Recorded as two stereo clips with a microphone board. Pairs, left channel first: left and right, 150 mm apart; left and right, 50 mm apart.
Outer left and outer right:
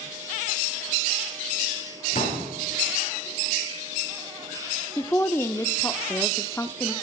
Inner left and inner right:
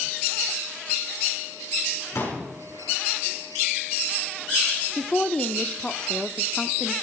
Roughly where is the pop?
Left.